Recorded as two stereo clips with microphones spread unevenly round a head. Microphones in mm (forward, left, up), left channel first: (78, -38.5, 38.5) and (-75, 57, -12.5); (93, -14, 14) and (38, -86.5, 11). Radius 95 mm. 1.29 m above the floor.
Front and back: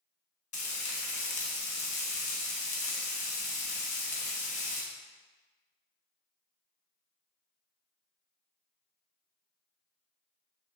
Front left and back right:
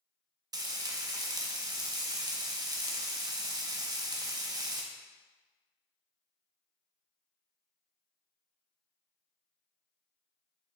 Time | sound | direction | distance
0.5 | frying | 80° right | 1.3 m